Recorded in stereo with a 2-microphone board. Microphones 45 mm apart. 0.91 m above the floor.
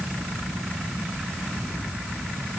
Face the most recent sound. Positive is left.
No sound to turn to.